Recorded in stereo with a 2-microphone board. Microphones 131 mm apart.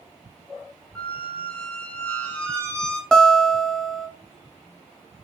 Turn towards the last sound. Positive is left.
turn(degrees=5)  # may be behind; listen again after turning